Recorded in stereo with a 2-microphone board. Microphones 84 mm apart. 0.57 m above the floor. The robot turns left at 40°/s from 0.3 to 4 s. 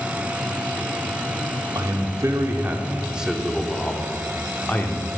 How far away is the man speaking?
About 0.9 m.